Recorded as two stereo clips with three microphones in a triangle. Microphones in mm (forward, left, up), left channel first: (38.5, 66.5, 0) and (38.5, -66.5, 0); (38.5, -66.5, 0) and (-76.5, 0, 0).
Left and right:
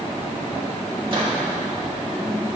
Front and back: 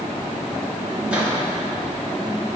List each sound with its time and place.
1.1 s a microwave: 130° right, 1.4 m